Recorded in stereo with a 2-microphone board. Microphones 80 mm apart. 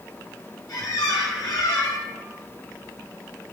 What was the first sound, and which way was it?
A squeak, 55° left (ahead or behind).